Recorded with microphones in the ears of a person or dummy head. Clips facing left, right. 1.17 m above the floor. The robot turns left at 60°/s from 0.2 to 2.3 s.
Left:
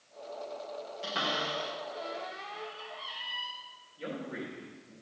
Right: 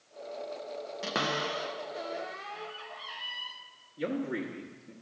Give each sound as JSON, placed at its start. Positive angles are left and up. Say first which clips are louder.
{"t": 1.0, "sound": "a cupboard door", "louder": "right 3 dB", "side_deg": -65, "distance_m": 0.8}
{"t": 4.0, "sound": "a man speaking", "louder": "right 6 dB", "side_deg": -60, "distance_m": 1.2}